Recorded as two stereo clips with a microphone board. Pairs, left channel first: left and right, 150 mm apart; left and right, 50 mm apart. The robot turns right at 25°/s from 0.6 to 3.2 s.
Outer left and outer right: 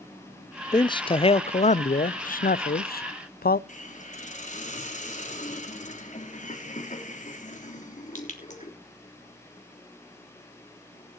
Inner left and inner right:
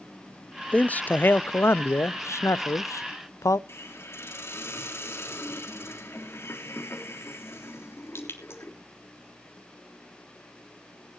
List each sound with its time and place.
0.7 s a man speaking: 25° left, 0.5 m; by 3.6 s 90° left, 0.5 m
3.7 s a hiss: 55° left (ahead or behind), 3.5 m